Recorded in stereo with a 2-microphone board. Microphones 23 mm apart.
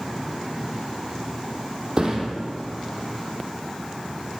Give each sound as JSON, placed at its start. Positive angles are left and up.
{"t": 2.0, "sound": "a thud", "side_deg": -25, "distance_m": 3.5}